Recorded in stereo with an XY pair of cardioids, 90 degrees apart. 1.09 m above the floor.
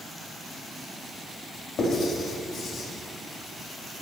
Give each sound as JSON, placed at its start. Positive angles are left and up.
{"t": 1.8, "sound": "writing", "azimuth_deg": 60, "distance_m": 7.5}